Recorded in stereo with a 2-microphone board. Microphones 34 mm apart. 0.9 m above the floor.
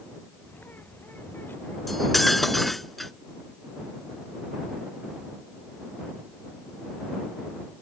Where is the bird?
70° left (ahead or behind).